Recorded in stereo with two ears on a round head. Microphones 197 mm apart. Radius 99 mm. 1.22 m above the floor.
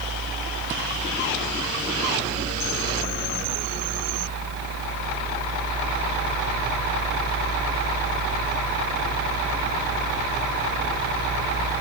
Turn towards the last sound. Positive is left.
No sound to turn to.